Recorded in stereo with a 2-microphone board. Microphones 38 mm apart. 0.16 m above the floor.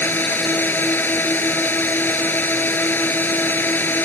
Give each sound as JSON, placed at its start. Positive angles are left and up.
{"t": 0.0, "sound": "a drone", "side_deg": 60}